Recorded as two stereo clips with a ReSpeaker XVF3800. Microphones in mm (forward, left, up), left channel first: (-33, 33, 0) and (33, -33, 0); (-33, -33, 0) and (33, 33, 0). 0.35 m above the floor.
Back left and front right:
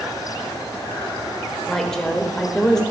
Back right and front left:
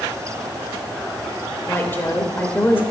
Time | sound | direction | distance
1.7 | a woman speaking | 150° right | 1.2 m